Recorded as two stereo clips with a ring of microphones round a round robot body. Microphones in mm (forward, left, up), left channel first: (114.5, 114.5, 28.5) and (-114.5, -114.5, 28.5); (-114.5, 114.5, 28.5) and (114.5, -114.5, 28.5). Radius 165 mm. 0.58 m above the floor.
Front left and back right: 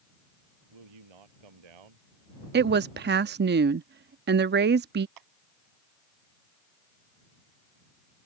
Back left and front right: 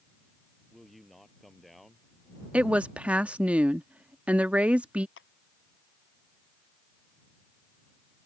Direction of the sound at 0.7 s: 135° right.